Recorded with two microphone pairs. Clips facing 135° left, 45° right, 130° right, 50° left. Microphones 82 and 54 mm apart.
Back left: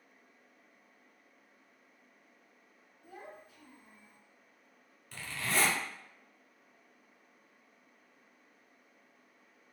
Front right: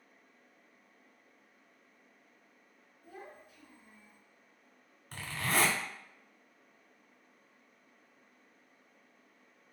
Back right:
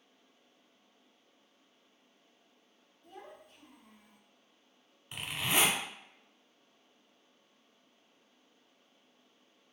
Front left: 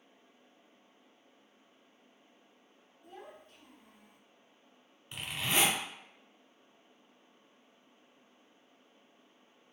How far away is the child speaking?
About 0.9 m.